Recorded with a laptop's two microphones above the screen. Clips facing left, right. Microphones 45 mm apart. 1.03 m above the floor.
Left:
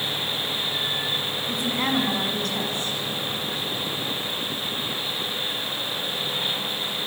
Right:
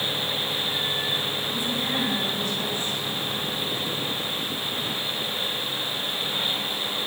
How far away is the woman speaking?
About 8.5 m.